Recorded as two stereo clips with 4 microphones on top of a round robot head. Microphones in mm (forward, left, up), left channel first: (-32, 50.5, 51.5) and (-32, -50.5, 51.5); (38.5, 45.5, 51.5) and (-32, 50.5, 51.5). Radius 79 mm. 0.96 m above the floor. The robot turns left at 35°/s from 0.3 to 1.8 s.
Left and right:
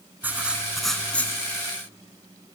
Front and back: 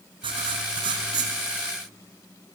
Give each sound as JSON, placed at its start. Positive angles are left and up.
{"t": 0.2, "sound": "writing", "azimuth_deg": -165, "distance_m": 1.9}